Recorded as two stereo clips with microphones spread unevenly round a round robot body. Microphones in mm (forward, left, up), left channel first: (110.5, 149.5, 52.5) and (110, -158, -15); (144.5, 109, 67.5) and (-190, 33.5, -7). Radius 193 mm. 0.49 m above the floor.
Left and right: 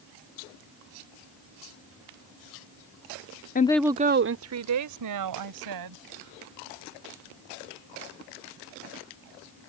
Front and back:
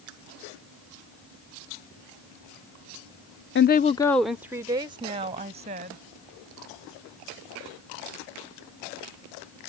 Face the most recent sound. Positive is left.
turn(degrees=-95)